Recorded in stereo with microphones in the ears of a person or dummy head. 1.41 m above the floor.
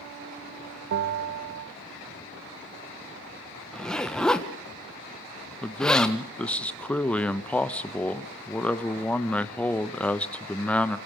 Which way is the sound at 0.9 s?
65° right (ahead or behind).